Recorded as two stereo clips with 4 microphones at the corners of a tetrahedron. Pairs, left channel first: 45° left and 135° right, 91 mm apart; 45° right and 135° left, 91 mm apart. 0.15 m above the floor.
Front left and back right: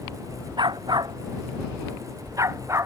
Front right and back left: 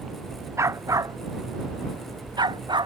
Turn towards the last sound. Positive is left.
turn(degrees=165)